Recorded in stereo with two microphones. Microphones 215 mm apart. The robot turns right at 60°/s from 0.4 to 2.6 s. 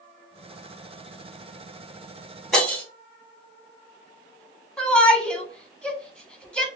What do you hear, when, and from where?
2.5 s breaking glass: centre (ahead or behind), 1.6 m; by 2.8 s 5° left (ahead or behind), 1.6 m
4.8 s a shout: 5° left (ahead or behind), 0.9 m